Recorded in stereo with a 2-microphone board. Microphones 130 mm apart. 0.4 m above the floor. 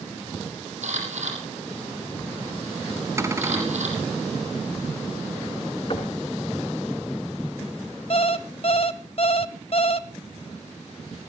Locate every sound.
0.8 s a camera shutter: 65° right (ahead or behind), 7 m
3.2 s a cupboard door: 25° right (ahead or behind), 2 m
5.9 s knocking: 45° left (ahead or behind), 3 m
8.1 s an alarm clock: 50° left (ahead or behind), 1.0 m